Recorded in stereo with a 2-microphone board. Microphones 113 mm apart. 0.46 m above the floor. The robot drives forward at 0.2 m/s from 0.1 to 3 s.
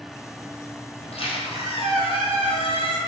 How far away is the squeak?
About 1.1 m.